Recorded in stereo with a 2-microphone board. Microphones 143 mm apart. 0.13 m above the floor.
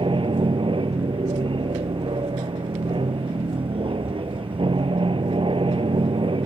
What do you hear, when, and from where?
0.0 s an aircraft: 40° right (ahead or behind)